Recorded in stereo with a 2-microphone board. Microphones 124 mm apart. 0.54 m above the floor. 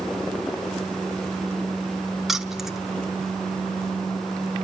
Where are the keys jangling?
Centre (ahead or behind), 0.9 m.